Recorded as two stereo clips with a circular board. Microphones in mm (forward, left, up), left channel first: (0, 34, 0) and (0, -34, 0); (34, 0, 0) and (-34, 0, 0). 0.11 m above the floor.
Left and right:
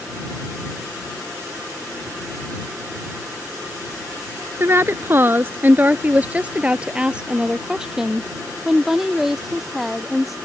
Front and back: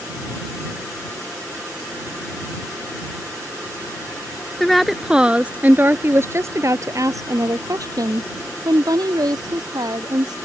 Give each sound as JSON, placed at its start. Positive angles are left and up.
{"t": 4.6, "sound": "a woman speaking", "azimuth_deg": -85}